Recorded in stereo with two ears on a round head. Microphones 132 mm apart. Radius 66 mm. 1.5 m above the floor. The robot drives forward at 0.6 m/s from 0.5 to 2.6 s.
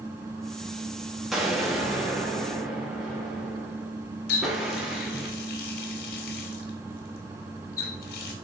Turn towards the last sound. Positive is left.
turn(degrees=65)  # may be behind; listen again after turning